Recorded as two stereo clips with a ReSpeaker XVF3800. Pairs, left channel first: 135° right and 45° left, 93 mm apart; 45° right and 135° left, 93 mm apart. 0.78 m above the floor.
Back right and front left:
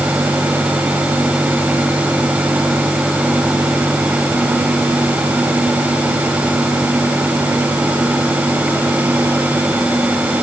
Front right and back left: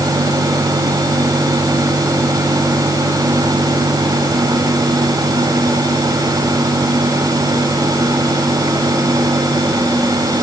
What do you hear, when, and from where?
Only background noise.